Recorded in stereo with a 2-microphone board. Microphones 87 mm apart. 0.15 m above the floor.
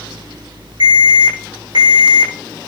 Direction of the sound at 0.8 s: 60° right (ahead or behind).